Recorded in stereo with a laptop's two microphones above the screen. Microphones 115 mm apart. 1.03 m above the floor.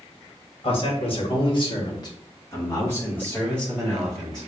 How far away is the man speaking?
About 1.0 m.